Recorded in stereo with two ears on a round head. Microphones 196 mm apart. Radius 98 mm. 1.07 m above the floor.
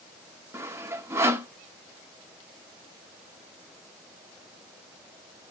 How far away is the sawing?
About 0.6 m.